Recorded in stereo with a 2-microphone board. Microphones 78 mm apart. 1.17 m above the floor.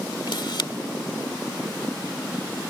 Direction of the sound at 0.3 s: 80° left.